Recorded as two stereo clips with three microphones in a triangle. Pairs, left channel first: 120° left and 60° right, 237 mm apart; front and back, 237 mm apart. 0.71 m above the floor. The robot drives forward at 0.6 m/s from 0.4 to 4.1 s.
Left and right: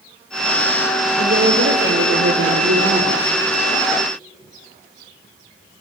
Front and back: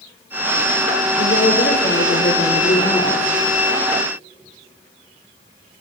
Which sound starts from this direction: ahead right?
A woman speaking, at 1.2 s.